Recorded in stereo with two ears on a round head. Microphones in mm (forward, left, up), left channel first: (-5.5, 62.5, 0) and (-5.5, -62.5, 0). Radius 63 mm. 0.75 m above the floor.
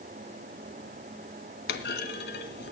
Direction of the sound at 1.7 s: 75° left (ahead or behind).